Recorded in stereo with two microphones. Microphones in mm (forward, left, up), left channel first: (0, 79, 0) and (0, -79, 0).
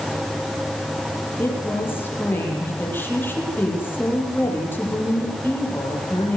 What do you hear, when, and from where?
1.4 s a woman speaking: 10° left (ahead or behind), 7.5 m